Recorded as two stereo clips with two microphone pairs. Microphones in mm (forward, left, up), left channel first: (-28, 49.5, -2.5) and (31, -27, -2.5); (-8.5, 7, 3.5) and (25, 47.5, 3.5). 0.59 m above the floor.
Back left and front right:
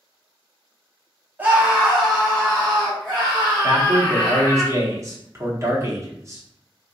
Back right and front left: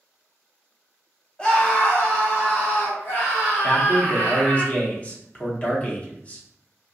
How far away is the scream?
About 0.8 m.